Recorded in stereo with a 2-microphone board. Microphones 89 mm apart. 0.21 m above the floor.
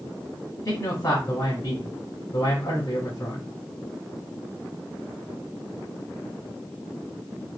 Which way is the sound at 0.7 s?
40° left (ahead or behind).